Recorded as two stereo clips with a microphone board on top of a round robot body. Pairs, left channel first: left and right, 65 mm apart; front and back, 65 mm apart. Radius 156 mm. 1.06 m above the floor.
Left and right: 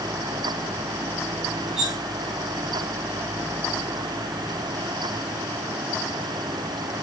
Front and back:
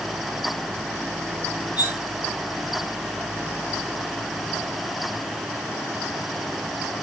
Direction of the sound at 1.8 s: 5° right.